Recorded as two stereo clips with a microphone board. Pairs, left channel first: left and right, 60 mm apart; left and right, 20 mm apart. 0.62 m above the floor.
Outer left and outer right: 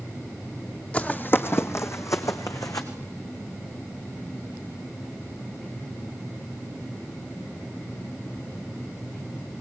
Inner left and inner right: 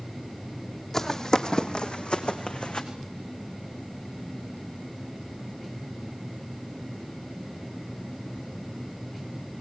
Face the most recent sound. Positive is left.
turn(degrees=70)  # may be behind; listen again after turning